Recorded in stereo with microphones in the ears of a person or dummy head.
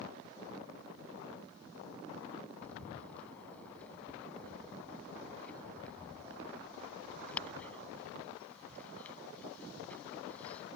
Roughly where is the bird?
Centre.